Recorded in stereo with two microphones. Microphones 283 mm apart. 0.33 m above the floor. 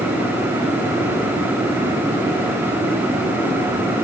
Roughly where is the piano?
I don't hear a piano.